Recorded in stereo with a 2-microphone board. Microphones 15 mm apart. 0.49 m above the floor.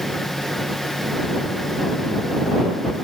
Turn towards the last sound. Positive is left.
No sound to turn to.